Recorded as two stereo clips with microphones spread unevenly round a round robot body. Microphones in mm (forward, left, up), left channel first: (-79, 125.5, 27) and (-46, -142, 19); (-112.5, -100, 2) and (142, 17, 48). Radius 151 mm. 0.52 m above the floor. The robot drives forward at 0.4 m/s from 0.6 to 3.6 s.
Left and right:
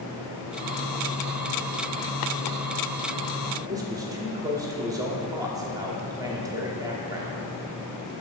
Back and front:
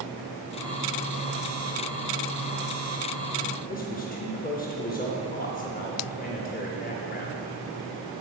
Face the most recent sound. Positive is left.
turn(degrees=-150)